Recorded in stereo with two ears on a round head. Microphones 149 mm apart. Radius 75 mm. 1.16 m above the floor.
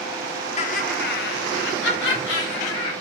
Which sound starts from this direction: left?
Laughter, at 0.6 s.